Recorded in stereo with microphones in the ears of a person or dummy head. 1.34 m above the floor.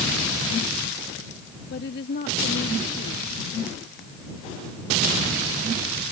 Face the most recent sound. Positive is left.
turn(degrees=50)  # may be behind; listen again after turning